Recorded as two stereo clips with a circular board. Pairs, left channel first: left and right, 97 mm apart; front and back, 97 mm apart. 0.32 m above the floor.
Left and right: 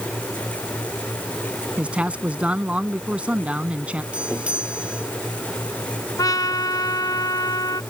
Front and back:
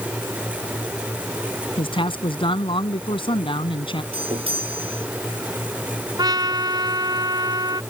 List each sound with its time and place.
1.8 s a man speaking: 15° right
4.1 s a doorbell: 170° right
6.2 s a trumpet: 140° left